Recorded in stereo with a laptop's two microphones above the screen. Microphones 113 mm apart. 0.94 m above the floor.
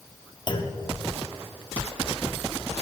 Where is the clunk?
45° left (ahead or behind), 1.0 m.